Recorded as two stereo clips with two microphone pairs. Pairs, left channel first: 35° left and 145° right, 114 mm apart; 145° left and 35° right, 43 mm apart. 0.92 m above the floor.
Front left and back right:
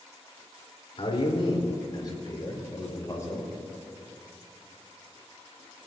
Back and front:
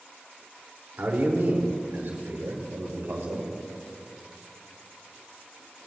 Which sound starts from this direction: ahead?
A man speaking, at 1.0 s.